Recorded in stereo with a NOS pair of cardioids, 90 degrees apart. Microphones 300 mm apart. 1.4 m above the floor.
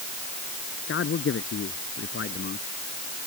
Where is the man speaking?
45° left.